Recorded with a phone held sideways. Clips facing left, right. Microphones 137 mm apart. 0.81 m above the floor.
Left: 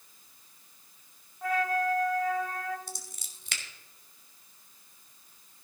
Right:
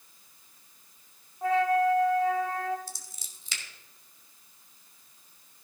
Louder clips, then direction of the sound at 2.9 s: Left 2 dB; 60° left (ahead or behind).